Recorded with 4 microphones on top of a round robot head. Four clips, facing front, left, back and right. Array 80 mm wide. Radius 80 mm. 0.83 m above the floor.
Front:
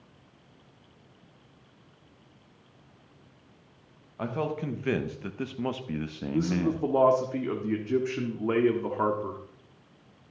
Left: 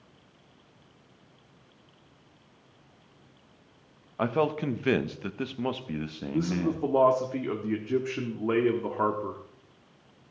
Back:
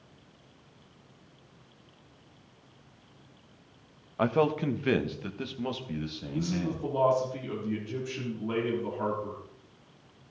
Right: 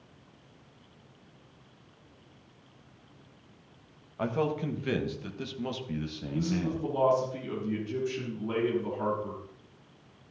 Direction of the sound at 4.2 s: 135° left.